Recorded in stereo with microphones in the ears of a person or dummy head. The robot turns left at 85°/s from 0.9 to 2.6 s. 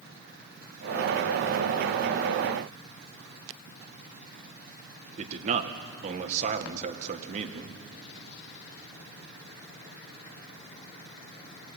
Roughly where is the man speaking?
Right.